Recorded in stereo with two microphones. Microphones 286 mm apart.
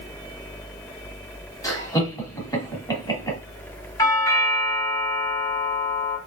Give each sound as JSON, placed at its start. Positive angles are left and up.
{"t": 1.6, "sound": "laughter", "side_deg": 10, "distance_m": 2.0}
{"t": 4.0, "sound": "a doorbell", "side_deg": 10, "distance_m": 1.9}